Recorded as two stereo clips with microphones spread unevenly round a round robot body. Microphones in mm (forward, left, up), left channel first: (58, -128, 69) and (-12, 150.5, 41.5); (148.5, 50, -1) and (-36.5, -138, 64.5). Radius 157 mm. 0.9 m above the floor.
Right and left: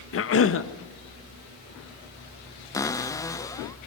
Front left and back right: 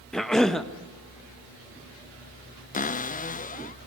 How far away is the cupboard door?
About 1.0 m.